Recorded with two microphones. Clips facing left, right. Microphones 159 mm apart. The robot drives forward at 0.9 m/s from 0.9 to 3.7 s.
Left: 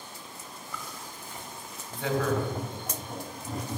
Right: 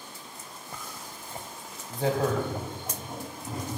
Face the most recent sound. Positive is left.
turn(degrees=-10)  # may be behind; listen again after turning